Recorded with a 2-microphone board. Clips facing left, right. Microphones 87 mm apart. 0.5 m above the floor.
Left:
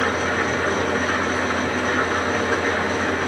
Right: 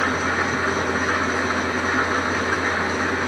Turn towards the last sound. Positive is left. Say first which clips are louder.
# even
turn(degrees=-10)  # may be behind; listen again after turning